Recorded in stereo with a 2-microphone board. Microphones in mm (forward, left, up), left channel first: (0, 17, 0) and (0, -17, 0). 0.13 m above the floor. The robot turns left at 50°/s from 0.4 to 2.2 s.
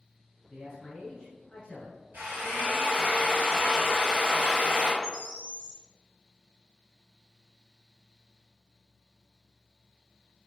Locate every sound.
0.5 s a man speaking: 10° left (ahead or behind), 1.8 m; by 2.0 s 20° left (ahead or behind), 1.8 m
2.1 s a drill: 65° right (ahead or behind), 1.7 m
5.0 s a bird: 30° right (ahead or behind), 0.9 m